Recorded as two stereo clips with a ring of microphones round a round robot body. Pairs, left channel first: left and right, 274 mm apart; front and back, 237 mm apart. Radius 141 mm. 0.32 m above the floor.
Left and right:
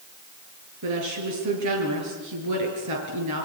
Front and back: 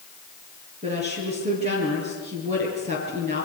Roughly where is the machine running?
I don't hear a machine running.